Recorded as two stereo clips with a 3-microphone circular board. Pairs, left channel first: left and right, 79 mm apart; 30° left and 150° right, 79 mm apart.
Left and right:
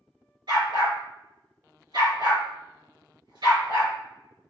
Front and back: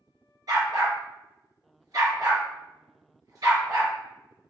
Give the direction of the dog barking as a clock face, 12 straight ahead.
4 o'clock.